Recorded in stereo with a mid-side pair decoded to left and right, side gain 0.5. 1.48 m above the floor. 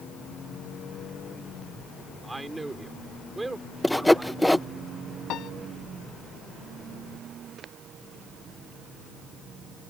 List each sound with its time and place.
2.2 s a man speaking: 15° right
3.8 s sawing: 5° left
5.3 s a piano: 65° left